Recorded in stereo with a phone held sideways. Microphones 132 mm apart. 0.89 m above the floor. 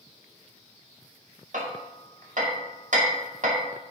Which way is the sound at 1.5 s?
70° right (ahead or behind).